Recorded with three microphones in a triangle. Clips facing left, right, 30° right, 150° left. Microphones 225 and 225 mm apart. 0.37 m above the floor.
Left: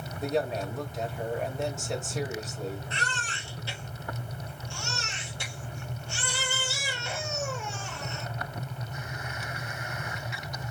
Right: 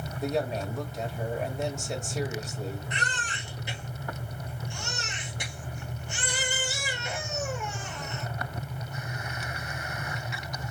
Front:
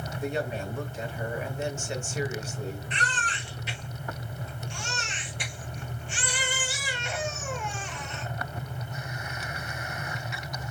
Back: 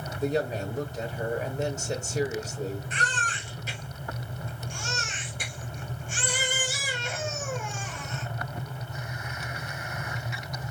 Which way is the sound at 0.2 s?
Straight behind.